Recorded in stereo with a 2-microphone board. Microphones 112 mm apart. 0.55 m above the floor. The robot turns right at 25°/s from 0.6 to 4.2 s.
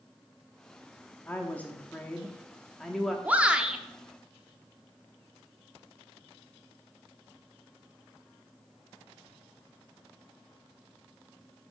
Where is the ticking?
No ticking in this recording.